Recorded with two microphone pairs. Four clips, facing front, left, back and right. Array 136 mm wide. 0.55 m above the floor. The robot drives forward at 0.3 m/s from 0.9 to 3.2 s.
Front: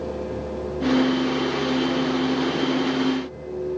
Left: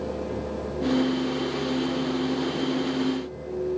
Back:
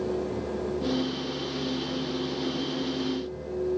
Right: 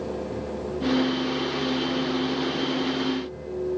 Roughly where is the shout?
No shout in this recording.